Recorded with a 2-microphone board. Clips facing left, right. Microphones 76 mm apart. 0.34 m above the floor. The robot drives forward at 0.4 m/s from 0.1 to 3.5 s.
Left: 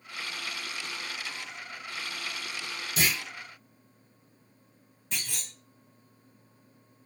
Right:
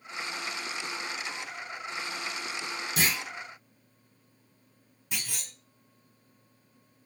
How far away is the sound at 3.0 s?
About 1.8 m.